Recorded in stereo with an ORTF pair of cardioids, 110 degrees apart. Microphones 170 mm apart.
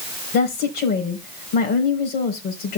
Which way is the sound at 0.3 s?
65° left.